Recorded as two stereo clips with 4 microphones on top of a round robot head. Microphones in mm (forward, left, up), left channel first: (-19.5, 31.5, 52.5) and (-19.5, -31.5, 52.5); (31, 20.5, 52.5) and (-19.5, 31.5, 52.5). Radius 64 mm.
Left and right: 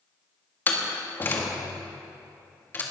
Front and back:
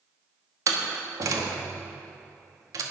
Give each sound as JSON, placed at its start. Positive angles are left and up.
{"t": 0.7, "sound": "a door slam", "azimuth_deg": 150, "distance_m": 2.0}